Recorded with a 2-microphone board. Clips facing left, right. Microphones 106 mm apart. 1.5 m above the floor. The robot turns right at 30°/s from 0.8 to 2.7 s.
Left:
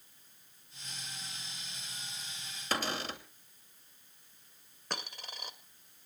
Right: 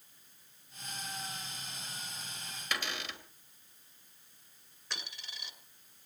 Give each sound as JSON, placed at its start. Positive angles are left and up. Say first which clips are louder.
{"t": 2.7, "sound": "a cupboard door", "louder": "left 5 dB", "side_deg": 35, "distance_m": 2.5}
{"t": 4.9, "sound": "a dropped coin", "louder": "left 5 dB", "side_deg": 50, "distance_m": 2.0}